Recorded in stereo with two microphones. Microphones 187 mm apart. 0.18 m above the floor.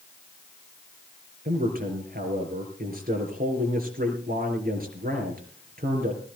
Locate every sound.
1.4 s a man speaking: 55° right (ahead or behind), 4 m